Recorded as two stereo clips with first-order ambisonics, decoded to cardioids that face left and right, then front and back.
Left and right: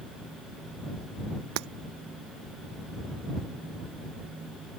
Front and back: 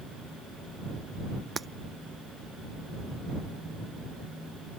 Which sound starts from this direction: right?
Breaking glass, at 1.6 s.